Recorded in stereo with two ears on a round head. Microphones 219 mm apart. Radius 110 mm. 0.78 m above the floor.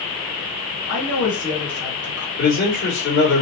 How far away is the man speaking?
About 2.5 m.